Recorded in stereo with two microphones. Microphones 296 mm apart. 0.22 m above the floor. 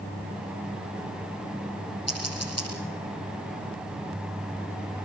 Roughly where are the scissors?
Left.